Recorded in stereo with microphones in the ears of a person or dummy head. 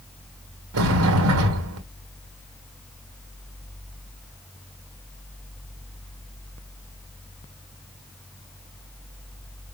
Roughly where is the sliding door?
Right.